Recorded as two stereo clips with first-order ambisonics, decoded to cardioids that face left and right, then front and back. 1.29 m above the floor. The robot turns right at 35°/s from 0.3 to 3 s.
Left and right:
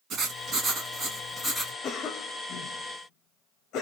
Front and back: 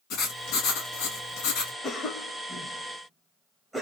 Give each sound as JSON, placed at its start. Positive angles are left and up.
{"t": 0.1, "sound": "writing", "azimuth_deg": -40, "distance_m": 2.0}
{"t": 1.8, "sound": "a cough", "azimuth_deg": 50, "distance_m": 0.7}